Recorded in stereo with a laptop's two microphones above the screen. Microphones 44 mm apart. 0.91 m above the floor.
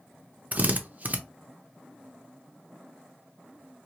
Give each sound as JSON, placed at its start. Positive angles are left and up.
{"t": 0.5, "sound": "a drill", "side_deg": -35, "distance_m": 0.5}